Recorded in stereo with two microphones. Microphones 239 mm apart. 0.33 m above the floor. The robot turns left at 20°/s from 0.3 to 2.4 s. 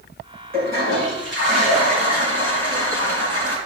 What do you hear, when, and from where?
0.5 s a toilet flushing: 40° right, 5 m; by 3.6 s 75° right, 5 m